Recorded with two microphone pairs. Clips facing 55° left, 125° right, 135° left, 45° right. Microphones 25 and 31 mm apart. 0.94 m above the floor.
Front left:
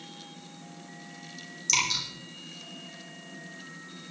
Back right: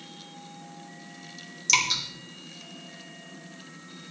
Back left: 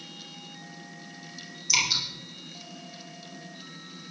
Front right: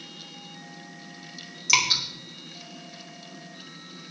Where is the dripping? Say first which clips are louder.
Back right 3 dB, front right 3 dB; 55° right, 4 m.